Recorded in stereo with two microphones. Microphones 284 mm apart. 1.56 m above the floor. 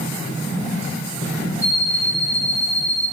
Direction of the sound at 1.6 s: 10° left (ahead or behind).